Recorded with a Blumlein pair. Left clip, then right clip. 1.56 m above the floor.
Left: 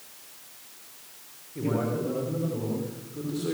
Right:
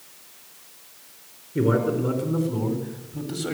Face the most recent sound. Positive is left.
turn(degrees=-70)